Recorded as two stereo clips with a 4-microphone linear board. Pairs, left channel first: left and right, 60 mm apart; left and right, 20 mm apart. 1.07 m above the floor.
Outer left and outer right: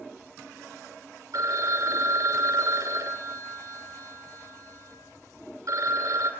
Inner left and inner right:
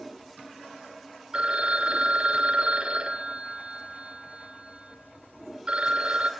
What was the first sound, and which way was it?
A phone ringing, 70° right (ahead or behind).